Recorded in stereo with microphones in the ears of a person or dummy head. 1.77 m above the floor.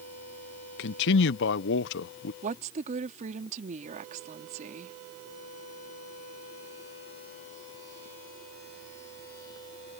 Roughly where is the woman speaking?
Right.